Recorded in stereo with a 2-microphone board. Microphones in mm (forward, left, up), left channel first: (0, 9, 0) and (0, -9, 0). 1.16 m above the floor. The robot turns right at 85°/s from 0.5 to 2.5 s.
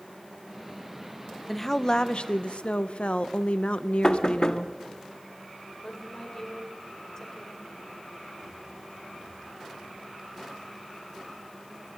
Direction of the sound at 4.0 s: 40° left (ahead or behind).